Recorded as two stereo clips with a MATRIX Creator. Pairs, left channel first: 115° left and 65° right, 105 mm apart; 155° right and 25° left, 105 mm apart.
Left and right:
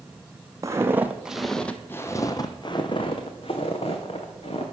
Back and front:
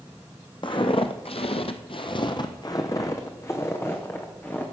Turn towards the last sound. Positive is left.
turn(degrees=130)